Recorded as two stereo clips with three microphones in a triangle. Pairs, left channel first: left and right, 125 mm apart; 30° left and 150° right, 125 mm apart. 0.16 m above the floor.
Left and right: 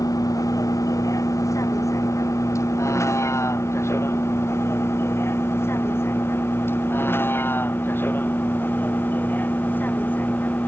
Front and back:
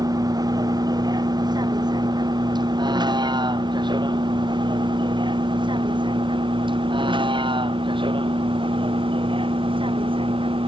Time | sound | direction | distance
0.0 | a vehicle | 150° left | ?